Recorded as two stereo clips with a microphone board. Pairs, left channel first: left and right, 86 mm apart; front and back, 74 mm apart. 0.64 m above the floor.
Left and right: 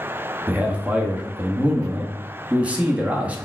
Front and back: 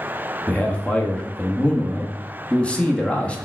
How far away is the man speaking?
About 0.6 m.